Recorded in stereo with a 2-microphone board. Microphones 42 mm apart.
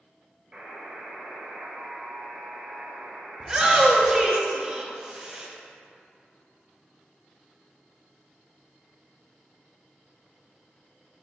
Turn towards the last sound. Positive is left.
turn(degrees=-15)  # may be behind; listen again after turning